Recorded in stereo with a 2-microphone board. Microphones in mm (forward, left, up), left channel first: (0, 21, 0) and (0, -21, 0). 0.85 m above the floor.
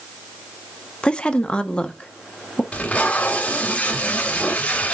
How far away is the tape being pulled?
About 2.5 m.